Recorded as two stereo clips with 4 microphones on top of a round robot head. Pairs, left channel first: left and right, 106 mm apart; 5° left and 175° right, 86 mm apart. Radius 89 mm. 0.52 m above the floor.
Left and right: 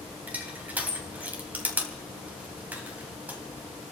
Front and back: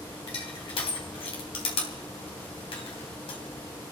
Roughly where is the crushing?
Ahead.